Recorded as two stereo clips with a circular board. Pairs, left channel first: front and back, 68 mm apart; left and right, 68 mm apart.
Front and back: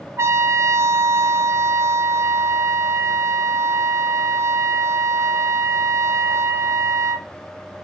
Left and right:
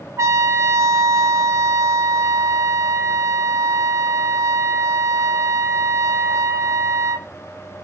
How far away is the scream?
No scream in this recording.